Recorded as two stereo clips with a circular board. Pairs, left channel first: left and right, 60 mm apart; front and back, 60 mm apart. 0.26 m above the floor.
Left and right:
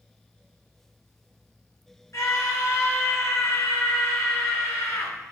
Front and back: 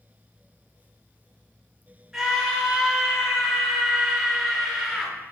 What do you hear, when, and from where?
2.1 s a scream: 100° left, 4 m